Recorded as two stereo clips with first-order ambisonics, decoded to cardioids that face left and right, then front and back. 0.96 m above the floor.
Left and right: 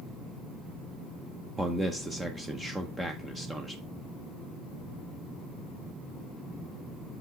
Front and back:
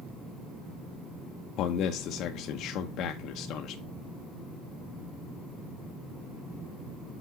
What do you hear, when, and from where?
1.6 s a man speaking: 10° right, 0.7 m